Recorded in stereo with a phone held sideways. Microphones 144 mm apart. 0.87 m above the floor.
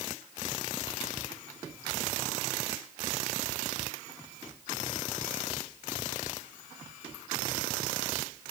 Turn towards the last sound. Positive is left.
No sound to turn to.